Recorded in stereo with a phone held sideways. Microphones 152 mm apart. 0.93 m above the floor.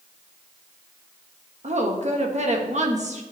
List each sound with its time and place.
1.6 s a woman speaking: 55° right (ahead or behind), 1.4 m